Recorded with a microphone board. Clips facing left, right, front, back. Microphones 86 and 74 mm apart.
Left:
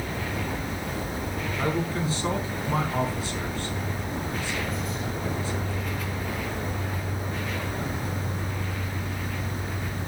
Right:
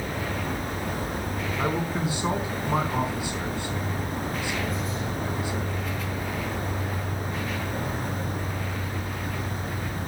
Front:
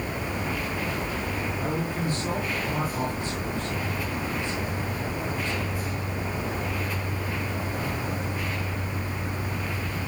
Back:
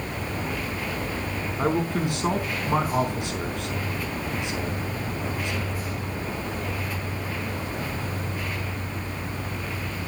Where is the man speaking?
165° right, 4 m.